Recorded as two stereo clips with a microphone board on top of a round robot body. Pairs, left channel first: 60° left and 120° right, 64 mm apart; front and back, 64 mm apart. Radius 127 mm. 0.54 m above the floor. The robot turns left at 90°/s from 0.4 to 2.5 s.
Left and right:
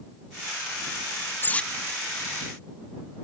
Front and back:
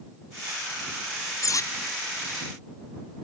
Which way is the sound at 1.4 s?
10° left.